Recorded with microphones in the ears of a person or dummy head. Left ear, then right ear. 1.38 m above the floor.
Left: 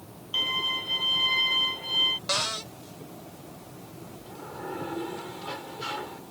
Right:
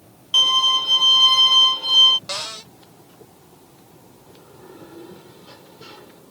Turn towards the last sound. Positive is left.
turn(degrees=35)  # may be behind; listen again after turning